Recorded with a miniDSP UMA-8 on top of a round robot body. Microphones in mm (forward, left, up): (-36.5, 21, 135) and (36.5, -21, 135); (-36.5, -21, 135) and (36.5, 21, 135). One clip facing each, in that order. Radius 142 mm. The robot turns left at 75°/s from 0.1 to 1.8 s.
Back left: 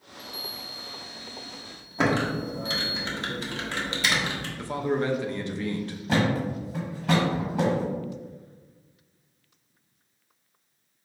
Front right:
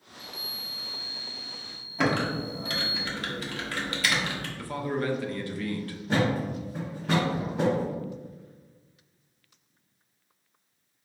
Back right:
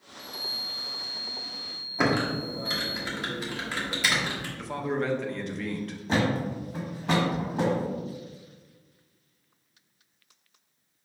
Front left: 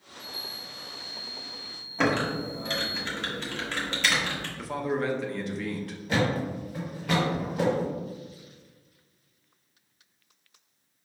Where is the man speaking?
115° left, 0.6 m.